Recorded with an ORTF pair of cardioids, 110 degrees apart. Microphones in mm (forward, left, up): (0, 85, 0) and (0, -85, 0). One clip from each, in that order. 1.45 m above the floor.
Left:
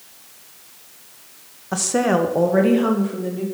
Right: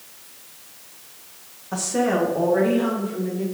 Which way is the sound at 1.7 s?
30° left.